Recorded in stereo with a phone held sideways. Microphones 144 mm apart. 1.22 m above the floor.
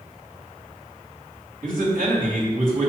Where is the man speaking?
70° right (ahead or behind), 2.5 m.